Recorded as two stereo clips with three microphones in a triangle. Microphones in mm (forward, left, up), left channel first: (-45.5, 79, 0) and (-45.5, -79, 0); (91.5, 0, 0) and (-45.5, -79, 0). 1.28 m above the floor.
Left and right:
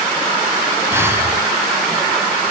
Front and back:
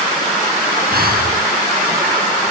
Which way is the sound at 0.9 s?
165° right.